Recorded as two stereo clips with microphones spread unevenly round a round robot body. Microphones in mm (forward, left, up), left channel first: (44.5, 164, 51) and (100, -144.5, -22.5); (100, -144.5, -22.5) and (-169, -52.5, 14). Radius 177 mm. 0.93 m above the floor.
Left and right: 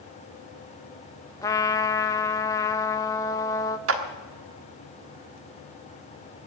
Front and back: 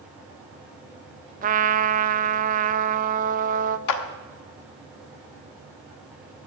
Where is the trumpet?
160° right, 0.6 m.